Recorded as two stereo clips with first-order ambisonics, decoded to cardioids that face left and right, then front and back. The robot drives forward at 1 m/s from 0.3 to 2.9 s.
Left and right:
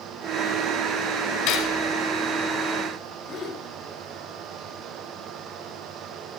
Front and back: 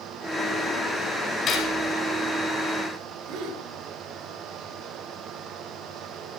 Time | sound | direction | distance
1.5 | cutlery clinking | 60° left | 3.5 m
3.3 | a gasp | 145° left | 4 m